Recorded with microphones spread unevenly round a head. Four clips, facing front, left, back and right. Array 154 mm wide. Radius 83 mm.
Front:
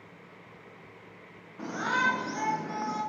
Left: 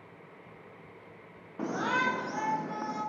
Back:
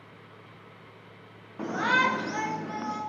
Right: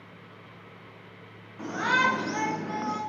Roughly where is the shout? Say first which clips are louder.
Right 4 dB, back 4 dB; behind left.